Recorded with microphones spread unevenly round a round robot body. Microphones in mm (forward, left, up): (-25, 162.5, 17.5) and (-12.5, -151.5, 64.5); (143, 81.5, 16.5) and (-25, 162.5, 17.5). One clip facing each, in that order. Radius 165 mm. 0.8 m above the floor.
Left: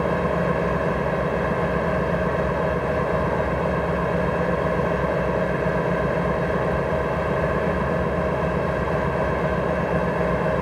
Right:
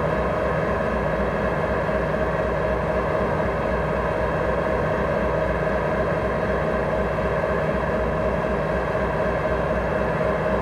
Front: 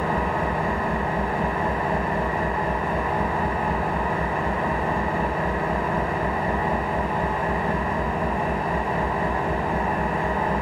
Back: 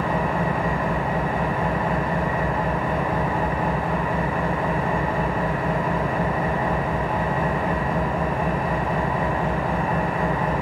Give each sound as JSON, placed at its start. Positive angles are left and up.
{"t": 0.0, "sound": "an engine running", "azimuth_deg": 150, "distance_m": 2.0}